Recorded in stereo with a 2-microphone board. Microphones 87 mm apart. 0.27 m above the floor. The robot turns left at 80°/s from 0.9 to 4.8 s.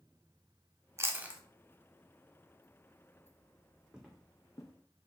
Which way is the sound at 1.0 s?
35° right (ahead or behind).